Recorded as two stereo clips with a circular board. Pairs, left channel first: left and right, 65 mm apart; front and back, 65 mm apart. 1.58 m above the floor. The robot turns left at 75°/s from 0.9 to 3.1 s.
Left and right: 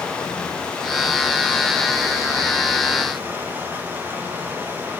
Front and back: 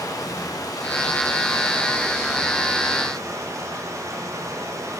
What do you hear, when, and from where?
0.0 s running water: 15° left, 1.4 m; by 5.0 s 150° right, 1.4 m